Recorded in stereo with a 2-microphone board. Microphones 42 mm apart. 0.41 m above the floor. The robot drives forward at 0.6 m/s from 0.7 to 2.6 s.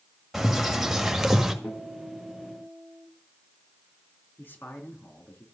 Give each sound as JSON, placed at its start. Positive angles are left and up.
{"t": 0.3, "sound": "a bird", "side_deg": -5, "distance_m": 1.9}
{"t": 1.6, "sound": "a guitar", "side_deg": 90, "distance_m": 8.0}
{"t": 4.4, "sound": "a man speaking", "side_deg": 60, "distance_m": 4.5}